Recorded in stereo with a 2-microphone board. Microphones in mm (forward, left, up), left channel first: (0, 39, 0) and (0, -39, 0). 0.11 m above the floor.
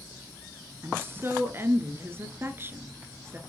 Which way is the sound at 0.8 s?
30° right (ahead or behind).